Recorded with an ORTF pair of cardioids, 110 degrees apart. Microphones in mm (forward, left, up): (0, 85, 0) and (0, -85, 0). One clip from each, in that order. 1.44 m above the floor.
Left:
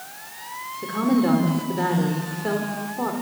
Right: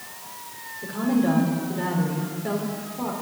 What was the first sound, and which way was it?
A woman speaking, 35° left.